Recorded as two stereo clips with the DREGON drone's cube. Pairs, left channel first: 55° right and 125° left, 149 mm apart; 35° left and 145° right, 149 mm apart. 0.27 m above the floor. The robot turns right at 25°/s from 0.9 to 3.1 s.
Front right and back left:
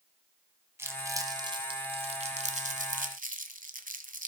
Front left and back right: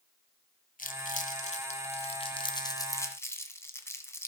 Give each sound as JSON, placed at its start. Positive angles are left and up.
{"t": 0.8, "sound": "crumpling", "azimuth_deg": 50, "distance_m": 1.4}